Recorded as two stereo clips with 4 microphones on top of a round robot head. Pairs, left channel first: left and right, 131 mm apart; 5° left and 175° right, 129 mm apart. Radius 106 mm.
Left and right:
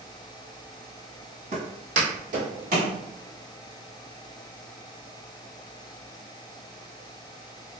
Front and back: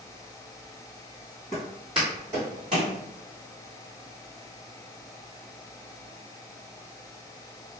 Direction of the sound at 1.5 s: 65° right.